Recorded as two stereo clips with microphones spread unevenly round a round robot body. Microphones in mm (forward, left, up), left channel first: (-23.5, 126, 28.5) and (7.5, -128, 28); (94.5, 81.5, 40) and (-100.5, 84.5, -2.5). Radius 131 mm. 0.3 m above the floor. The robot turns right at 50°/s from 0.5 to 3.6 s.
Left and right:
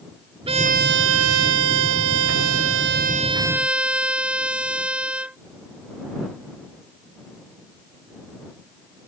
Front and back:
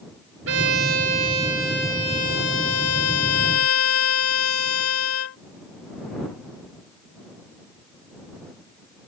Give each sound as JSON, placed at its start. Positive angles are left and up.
{"t": 0.5, "sound": "a violin", "azimuth_deg": -150}